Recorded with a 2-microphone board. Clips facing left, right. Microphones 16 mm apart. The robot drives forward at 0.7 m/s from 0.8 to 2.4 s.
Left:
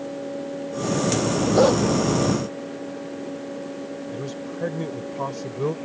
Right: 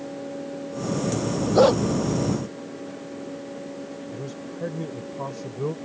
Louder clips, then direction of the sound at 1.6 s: Right 1 dB; 5° right (ahead or behind).